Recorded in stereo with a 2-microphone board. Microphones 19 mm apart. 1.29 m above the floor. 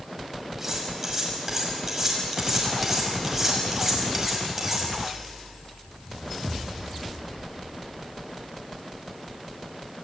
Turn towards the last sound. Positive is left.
turn(degrees=-15)  # may be behind; listen again after turning